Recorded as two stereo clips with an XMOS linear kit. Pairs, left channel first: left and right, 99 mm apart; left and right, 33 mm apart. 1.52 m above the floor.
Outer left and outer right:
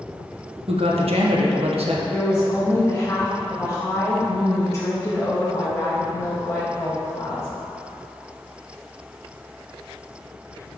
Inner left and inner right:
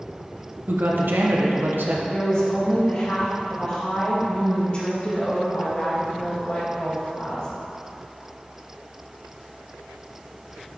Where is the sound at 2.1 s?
25° left (ahead or behind), 2.0 m.